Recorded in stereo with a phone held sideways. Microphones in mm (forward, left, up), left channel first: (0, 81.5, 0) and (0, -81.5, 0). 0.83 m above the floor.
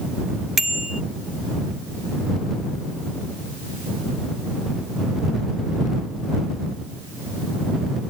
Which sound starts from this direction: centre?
A bicycle bell, at 0.6 s.